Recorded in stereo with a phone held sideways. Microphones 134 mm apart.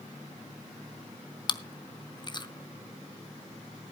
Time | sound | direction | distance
1.5 | chewing | 35° left (ahead or behind) | 0.6 m